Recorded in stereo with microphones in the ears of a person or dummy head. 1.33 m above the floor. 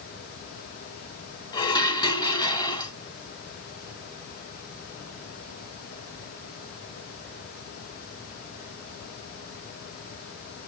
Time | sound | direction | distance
1.5 | dishes clattering | 25° left (ahead or behind) | 0.9 m